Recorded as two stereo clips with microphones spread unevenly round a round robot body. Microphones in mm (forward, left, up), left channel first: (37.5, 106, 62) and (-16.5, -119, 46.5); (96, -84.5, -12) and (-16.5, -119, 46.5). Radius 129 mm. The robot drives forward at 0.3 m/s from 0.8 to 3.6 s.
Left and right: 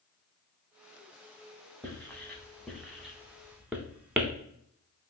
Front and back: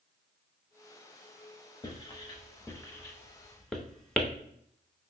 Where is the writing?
10° right, 1.1 m; by 4.3 s 25° right, 0.7 m.